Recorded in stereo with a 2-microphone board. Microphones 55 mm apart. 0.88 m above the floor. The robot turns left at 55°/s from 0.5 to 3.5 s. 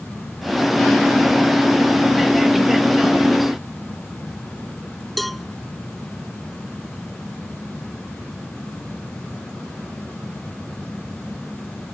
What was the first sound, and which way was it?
A cowbell, centre (ahead or behind).